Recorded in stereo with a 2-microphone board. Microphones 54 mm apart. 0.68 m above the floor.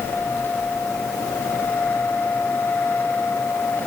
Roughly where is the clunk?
No clunk in this recording.